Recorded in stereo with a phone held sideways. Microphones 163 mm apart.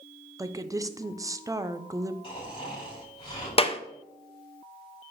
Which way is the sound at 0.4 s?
20° right (ahead or behind).